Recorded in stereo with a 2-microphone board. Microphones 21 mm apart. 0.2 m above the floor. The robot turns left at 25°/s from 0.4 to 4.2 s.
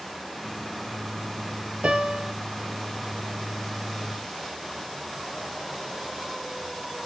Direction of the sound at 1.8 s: 85° right.